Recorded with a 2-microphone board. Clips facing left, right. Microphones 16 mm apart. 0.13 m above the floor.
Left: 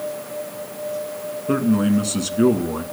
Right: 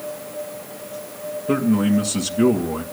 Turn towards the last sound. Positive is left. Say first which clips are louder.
# even
turn(degrees=0)  # may be behind; listen again after turning